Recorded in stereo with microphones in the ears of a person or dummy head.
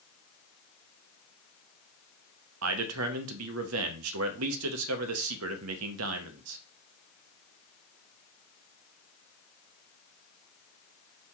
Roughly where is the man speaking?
Right.